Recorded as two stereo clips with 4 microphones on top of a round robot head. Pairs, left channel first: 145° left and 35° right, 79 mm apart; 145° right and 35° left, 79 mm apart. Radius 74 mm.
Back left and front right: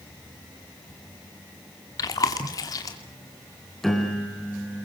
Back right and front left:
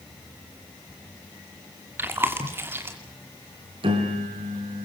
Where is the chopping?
I don't hear chopping.